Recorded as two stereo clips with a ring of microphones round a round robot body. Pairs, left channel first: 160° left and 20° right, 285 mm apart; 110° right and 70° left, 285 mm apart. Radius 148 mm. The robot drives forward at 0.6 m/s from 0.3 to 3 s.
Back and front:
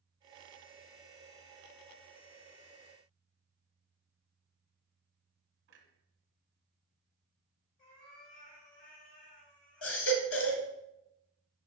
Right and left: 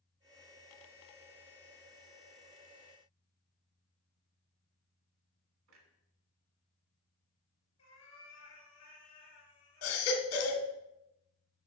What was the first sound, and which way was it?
A clunk, 30° left.